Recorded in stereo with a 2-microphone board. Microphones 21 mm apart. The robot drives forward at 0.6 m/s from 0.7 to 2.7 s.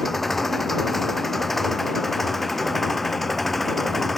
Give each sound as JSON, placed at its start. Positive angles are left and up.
{"t": 0.0, "sound": "an engine running", "side_deg": 10}